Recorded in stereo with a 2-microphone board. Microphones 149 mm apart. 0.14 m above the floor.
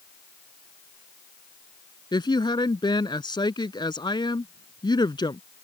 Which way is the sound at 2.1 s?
30° left (ahead or behind).